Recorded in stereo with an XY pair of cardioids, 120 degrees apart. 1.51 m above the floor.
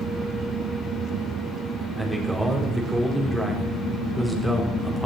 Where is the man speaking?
5° right, 4 m.